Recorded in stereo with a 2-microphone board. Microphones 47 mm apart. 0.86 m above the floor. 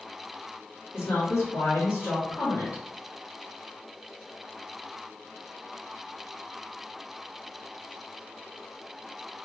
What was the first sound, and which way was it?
A woman speaking, 75° left (ahead or behind).